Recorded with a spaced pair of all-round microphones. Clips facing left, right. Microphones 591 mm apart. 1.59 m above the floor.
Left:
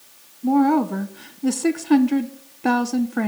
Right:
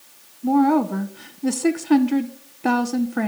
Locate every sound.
0.4 s a woman speaking: centre (ahead or behind), 0.6 m